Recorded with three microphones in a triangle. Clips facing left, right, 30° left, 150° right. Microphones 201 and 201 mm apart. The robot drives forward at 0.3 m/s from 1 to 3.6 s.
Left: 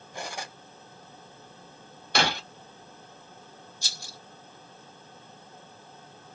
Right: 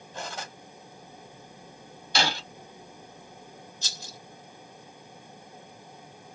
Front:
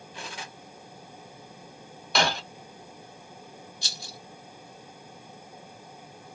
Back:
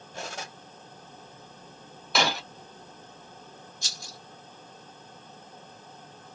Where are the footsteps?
No footsteps in this recording.